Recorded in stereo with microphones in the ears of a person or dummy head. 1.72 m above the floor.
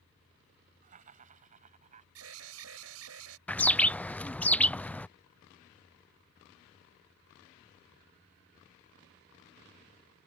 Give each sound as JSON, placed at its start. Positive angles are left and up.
{"t": 0.8, "sound": "laughter", "side_deg": -45}
{"t": 2.1, "sound": "an alarm", "side_deg": -90}
{"t": 3.5, "sound": "a bird", "side_deg": 5}